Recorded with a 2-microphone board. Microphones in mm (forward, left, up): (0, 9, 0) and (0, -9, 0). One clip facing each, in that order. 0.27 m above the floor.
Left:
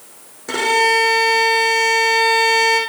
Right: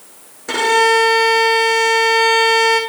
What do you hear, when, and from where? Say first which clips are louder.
0.5 s a violin: right 2 dB; 10° right (ahead or behind), 2.5 m